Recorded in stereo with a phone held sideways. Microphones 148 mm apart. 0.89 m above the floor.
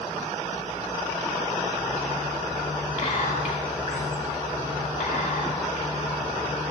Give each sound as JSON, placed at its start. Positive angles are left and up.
{"t": 3.0, "sound": "whispering", "side_deg": 60, "distance_m": 2.5}